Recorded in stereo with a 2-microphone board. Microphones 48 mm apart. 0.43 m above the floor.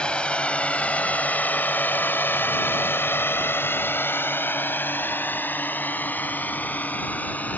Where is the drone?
20° left (ahead or behind); by 7.6 s 35° left (ahead or behind).